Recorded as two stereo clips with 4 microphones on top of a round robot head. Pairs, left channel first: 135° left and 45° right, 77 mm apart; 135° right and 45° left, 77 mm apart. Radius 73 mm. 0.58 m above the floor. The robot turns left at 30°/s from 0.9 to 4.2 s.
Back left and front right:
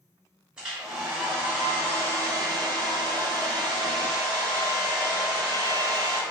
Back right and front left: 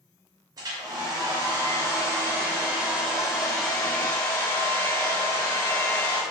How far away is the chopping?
No chopping in this recording.